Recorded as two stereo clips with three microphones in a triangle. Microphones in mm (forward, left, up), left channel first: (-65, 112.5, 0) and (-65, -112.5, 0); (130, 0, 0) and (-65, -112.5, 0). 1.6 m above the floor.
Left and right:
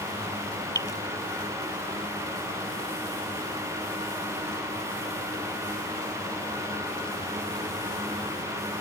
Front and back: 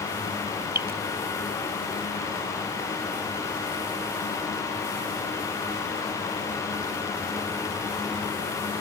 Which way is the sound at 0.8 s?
165° left.